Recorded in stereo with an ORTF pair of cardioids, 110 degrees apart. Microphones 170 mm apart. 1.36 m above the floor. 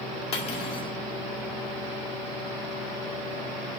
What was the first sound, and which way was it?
Cutlery clinking, 40° left.